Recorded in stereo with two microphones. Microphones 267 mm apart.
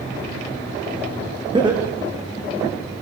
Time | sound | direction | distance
1.5 | laughter | 15° right (ahead or behind) | 7.5 m